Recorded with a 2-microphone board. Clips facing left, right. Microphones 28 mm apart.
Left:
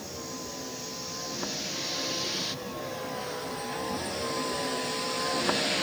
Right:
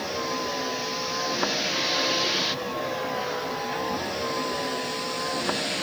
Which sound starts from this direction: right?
A vehicle, at 0.0 s.